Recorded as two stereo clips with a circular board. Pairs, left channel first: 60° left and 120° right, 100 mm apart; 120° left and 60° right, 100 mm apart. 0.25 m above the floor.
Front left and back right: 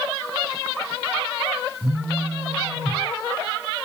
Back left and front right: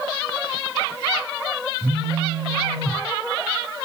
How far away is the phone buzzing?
About 2 m.